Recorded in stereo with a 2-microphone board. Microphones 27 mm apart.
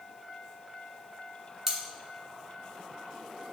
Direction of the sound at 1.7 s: 15° right (ahead or behind).